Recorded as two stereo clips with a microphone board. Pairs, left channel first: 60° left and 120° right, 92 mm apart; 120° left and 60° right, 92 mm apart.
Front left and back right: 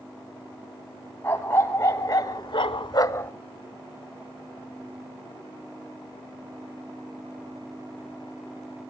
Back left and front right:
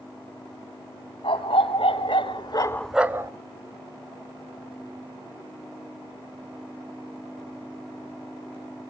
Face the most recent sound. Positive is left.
turn(degrees=-5)